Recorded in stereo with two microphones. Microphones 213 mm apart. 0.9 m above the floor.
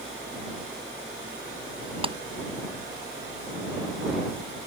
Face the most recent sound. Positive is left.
turn(degrees=-25)  # may be behind; listen again after turning